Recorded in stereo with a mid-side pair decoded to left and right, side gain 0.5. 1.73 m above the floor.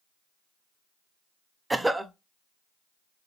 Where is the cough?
10° right, 0.5 m.